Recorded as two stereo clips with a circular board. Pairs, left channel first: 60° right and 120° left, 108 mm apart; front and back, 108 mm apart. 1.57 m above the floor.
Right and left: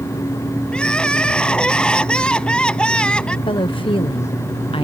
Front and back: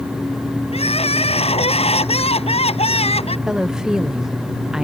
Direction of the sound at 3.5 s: 95° right.